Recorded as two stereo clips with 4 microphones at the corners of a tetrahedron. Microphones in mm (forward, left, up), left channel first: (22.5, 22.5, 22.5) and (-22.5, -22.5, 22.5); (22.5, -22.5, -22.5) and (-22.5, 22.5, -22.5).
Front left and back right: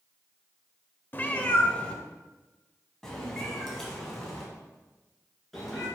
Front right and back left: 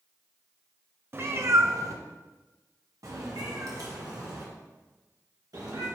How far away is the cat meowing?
About 0.5 m.